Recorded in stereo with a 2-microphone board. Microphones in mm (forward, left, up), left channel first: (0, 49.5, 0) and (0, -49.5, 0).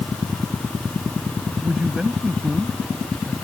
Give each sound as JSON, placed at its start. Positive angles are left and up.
{"t": 1.6, "sound": "a man speaking", "side_deg": -10}